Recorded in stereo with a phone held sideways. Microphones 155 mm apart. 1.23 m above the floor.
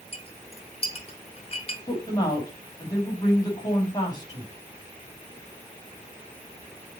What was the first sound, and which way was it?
A clink, 40° left (ahead or behind).